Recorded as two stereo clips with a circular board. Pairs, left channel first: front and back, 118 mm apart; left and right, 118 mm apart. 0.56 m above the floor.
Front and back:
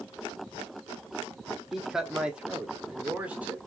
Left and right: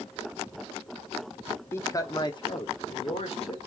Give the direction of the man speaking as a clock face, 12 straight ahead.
9 o'clock.